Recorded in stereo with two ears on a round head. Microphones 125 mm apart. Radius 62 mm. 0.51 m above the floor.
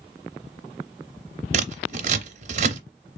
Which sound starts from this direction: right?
Scissors, at 1.5 s.